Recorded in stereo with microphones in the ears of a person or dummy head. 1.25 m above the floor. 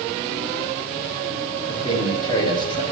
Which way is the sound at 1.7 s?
25° left (ahead or behind).